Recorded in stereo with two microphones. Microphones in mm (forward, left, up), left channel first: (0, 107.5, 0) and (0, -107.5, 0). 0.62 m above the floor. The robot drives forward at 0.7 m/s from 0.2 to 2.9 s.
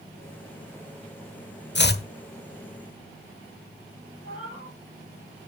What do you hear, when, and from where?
1.8 s chopping: 55° left (ahead or behind), 1.1 m; by 2.0 s 45° left (ahead or behind), 1.2 m
4.2 s a cat meowing: 70° left (ahead or behind), 10 m